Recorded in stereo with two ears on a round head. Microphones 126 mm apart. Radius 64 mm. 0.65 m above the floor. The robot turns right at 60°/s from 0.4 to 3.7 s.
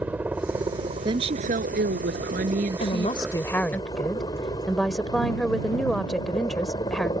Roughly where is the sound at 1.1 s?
Behind right.